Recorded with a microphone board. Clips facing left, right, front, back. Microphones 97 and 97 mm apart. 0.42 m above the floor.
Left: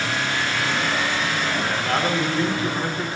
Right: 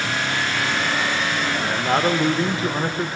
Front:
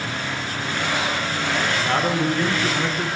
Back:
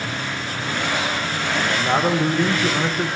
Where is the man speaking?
125° right, 0.8 m.